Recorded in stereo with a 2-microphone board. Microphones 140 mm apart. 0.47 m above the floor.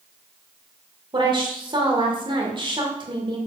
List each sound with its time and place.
1.1 s a woman speaking: 35° right (ahead or behind), 1.7 m